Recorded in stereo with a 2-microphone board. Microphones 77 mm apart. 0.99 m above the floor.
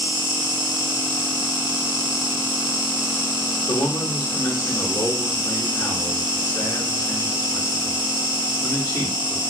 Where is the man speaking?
60° left (ahead or behind), 1.3 m.